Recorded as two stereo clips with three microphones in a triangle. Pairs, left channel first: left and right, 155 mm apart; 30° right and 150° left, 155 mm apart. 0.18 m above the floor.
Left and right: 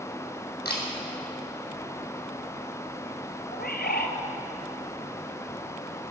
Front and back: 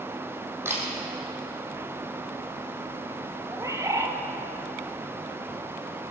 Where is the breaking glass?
No breaking glass in this recording.